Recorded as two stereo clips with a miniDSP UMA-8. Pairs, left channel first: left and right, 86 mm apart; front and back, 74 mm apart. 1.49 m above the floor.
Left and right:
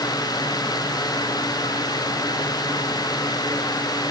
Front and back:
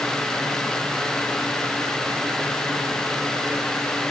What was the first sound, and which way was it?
Only background noise.